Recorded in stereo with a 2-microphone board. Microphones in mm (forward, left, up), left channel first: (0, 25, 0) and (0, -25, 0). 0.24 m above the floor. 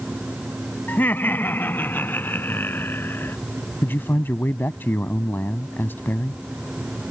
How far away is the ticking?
I don't hear ticking.